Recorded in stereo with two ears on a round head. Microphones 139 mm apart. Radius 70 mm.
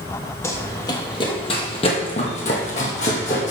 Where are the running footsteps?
15° left (ahead or behind), 1.3 m; by 3.5 s 50° left (ahead or behind), 2 m.